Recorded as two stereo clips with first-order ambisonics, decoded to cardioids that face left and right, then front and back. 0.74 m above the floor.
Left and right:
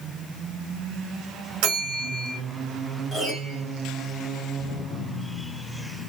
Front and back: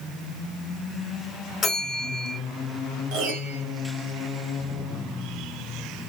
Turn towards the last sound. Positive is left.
turn(degrees=-175)